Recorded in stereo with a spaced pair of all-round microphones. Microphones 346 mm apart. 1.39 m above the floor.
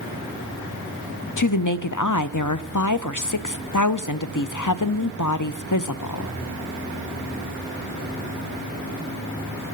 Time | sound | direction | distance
1.4 | a woman speaking | 60° left (ahead or behind) | 0.6 m